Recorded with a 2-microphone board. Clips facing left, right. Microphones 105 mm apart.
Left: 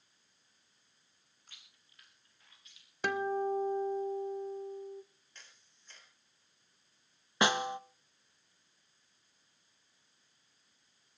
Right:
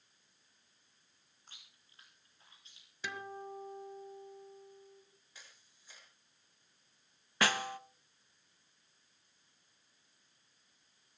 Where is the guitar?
60° left (ahead or behind), 1.0 m.